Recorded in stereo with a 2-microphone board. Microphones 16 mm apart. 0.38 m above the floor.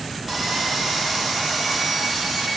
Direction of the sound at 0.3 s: 15° right (ahead or behind).